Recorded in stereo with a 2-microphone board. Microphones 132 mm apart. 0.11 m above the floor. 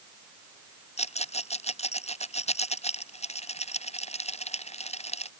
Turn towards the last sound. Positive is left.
turn(degrees=55)  # may be behind; listen again after turning